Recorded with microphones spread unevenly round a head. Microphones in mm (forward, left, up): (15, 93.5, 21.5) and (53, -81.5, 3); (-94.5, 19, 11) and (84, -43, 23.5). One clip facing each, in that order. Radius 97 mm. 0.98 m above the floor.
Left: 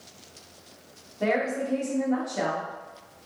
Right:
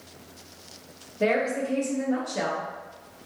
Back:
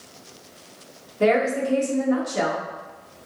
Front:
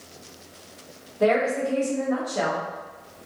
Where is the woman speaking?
140° right, 1.2 m.